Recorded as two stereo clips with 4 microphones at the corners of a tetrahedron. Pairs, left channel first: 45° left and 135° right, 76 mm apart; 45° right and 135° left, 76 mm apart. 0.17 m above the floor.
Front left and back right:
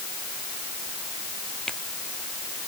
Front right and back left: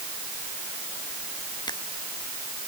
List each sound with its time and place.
1.7 s a finger snap: 35° right